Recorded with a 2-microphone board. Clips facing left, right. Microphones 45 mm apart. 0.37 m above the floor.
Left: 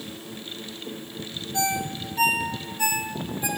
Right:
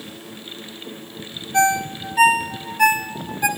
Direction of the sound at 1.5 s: 65° right (ahead or behind).